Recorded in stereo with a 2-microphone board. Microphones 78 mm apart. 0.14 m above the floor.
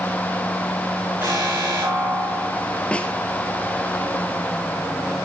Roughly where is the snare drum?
Centre.